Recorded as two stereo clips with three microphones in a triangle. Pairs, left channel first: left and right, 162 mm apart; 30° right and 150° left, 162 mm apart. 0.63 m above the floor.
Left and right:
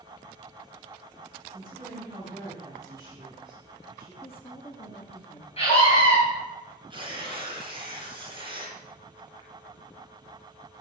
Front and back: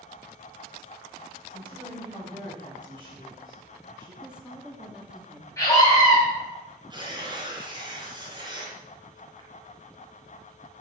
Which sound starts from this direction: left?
A woman speaking, at 4.2 s.